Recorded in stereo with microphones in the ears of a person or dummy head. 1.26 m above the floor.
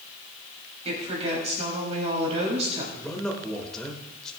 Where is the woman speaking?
35° right (ahead or behind), 3.5 m.